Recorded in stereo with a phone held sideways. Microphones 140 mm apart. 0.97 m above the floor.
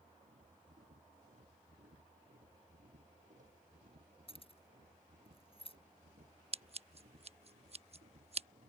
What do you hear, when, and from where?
0.0 s a machine running: 65° right (ahead or behind)
4.3 s keys jangling: 40° left (ahead or behind)
6.5 s scissors: 45° right (ahead or behind)